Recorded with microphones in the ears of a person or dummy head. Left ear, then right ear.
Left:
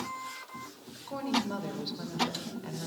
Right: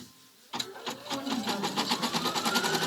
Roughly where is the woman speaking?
Centre.